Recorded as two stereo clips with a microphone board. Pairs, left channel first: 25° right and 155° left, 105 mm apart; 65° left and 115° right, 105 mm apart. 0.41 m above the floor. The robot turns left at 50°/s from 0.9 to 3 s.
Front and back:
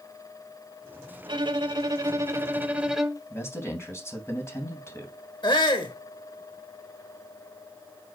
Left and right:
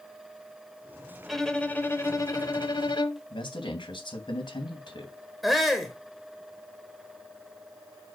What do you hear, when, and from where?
1.3 s a violin: 160° left, 1.1 m; by 3.2 s 75° left, 1.1 m
3.3 s a man speaking: 40° left, 3 m
5.4 s a shout: 25° right, 1.2 m